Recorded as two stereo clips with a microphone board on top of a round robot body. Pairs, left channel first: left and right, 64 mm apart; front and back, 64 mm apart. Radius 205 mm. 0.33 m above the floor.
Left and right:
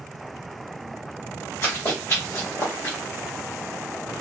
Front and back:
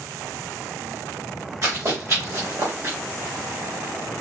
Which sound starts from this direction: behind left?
Running footsteps, at 1.6 s.